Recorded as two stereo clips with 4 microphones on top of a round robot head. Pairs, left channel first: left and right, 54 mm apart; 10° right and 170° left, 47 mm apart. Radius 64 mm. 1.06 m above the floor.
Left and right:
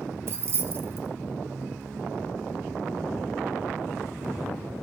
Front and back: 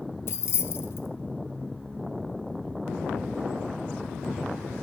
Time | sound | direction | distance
0.3 | keys jangling | 45° right | 0.7 m